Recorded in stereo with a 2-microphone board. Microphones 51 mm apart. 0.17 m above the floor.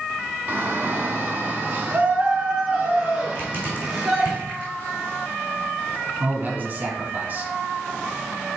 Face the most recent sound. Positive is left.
turn(degrees=-35)  # may be behind; listen again after turning